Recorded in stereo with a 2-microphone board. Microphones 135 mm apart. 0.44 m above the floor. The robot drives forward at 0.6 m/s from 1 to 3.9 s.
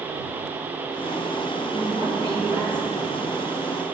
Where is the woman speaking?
40° right (ahead or behind), 3 m; by 3.1 s 35° right (ahead or behind), 3.5 m.